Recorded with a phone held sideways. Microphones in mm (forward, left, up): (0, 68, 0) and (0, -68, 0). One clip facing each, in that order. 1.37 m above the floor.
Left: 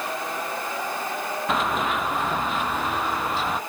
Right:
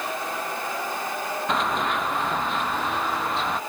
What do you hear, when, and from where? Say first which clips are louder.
1.5 s running footsteps: left 1 dB; centre (ahead or behind)